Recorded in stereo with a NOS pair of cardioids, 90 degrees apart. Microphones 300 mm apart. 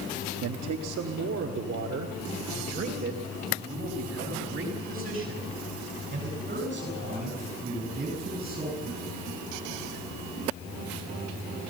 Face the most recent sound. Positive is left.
turn(degrees=-25)